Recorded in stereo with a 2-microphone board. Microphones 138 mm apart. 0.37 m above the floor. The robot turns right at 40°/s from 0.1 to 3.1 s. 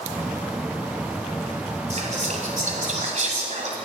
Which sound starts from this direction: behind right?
Whispering, at 1.9 s.